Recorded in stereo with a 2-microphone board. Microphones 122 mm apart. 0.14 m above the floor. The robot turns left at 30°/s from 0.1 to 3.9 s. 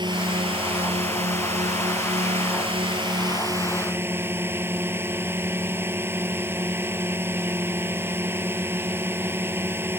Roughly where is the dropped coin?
I don't hear a dropped coin.